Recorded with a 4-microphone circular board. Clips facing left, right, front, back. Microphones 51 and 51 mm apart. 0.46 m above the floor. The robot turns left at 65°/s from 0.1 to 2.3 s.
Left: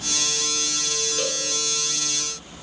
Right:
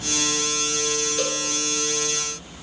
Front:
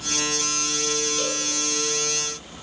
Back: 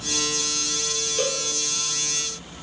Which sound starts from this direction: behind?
A cowbell, at 1.2 s.